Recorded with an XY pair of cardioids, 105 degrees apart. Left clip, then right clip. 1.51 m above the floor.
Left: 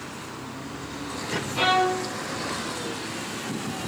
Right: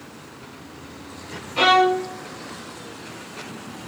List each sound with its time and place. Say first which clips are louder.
1.6 s a violin: right 6 dB; 35° right, 1.8 m